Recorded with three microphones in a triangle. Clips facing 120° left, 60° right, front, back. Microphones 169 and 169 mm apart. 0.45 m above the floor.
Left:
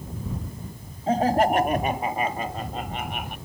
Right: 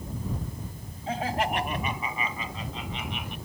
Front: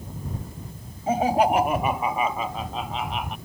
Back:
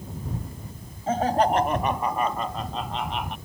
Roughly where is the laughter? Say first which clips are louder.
Left 8 dB, front 1 dB; left.